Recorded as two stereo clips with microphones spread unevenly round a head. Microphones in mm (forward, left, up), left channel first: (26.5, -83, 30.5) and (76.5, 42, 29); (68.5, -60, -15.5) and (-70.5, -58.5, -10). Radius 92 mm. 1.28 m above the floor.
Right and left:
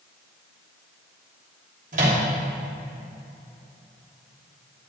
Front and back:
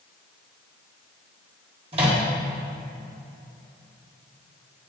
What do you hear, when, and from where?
1.9 s a microwave: 120° left, 1.0 m